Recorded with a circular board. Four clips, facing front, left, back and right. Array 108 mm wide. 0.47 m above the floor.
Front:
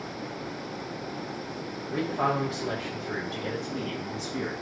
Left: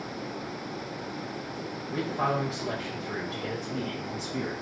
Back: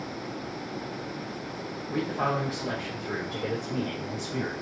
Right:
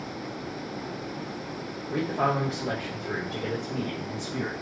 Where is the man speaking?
90° right, 1.6 m; by 4.5 s 155° right, 1.9 m.